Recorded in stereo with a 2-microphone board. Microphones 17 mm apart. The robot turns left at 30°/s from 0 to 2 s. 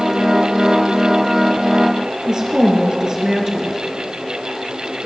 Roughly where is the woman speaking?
Right.